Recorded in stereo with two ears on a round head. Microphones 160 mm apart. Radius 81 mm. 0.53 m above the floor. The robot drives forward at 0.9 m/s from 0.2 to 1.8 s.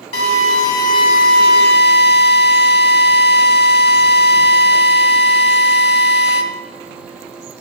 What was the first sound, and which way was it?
A drill, 35° left (ahead or behind).